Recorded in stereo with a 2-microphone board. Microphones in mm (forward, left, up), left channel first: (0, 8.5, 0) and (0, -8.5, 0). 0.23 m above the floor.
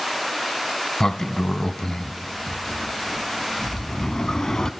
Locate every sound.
1.0 s a sliding door: 30° left (ahead or behind), 0.7 m